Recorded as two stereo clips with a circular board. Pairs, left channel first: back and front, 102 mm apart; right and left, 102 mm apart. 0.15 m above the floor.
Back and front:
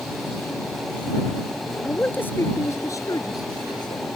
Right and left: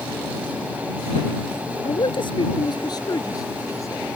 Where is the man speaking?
105° right; by 4.0 s 150° right.